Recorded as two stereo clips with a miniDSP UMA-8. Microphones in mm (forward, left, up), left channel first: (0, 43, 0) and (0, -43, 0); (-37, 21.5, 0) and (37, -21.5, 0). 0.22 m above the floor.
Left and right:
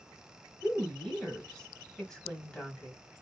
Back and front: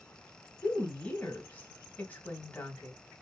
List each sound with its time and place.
0.6 s a woman speaking: 155° left, 1.4 m